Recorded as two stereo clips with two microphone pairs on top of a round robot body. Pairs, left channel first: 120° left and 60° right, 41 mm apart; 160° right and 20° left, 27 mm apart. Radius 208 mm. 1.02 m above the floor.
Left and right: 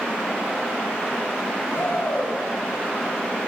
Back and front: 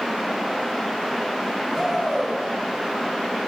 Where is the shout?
105° left, 9.5 m.